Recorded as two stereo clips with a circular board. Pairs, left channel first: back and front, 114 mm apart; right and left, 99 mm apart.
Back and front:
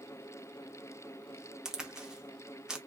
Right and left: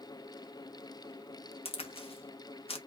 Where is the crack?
85° right, 0.6 m.